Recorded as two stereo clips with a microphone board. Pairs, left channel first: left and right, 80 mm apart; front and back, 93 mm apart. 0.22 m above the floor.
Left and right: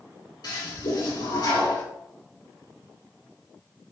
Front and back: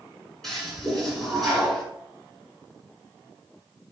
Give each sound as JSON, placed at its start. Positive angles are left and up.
{"t": 0.4, "sound": "a toilet flushing", "azimuth_deg": 85, "distance_m": 2.0}